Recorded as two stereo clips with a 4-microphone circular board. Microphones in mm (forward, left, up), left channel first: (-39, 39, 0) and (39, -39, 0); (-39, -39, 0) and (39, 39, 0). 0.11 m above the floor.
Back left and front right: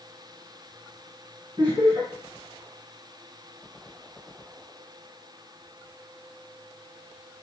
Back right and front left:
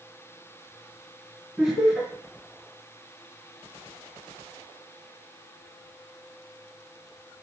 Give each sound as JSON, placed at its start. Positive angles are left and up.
{"t": 1.6, "sound": "laughter", "azimuth_deg": -35, "distance_m": 2.0}